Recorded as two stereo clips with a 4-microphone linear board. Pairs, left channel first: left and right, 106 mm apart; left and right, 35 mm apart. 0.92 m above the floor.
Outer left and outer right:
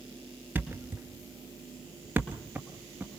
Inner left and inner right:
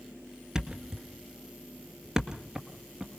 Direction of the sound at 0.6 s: 15° right (ahead or behind).